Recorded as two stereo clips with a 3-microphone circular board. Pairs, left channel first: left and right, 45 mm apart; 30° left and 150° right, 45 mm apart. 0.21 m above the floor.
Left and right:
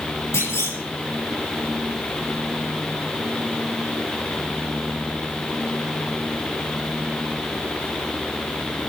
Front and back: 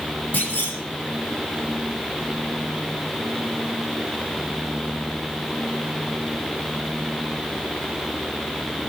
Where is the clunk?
90° left, 7 m.